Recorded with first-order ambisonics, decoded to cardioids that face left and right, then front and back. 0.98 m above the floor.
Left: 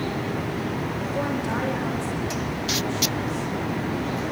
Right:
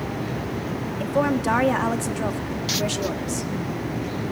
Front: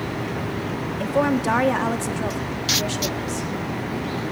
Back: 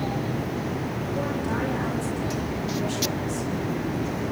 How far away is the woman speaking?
About 2 m.